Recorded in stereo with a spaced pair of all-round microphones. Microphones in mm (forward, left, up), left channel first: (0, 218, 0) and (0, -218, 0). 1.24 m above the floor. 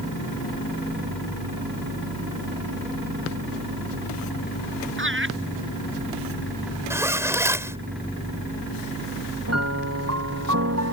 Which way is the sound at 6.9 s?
5° right (ahead or behind).